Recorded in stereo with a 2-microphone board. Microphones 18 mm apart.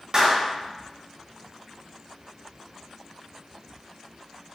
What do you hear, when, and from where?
0.1 s a clap: 55° right (ahead or behind), 0.9 m